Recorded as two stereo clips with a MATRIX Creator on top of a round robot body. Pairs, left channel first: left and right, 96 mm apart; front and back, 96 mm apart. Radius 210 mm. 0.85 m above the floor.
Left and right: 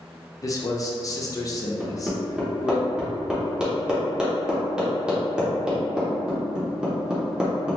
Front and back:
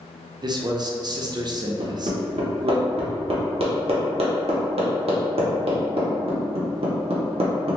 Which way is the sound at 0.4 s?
140° left.